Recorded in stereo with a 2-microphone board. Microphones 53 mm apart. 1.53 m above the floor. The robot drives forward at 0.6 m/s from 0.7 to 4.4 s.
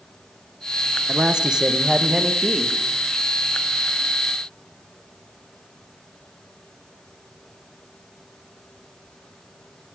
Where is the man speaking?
15° right (ahead or behind), 1.3 m; by 2.7 s 10° right (ahead or behind), 2 m.